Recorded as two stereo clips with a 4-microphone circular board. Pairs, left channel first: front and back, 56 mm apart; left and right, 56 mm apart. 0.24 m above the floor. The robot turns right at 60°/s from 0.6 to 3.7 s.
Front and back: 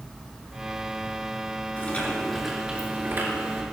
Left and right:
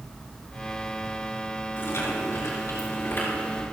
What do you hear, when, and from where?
1.8 s chewing: 50° left, 4 m; by 3.6 s 160° left, 4 m